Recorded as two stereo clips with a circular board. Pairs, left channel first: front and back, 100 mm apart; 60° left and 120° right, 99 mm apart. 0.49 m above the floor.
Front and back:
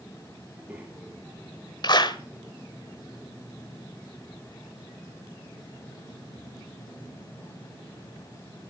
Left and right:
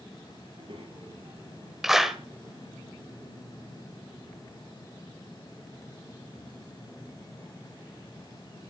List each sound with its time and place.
0.5 s a child speaking: 105° right, 7.5 m
1.8 s a clap: 35° right, 1.5 m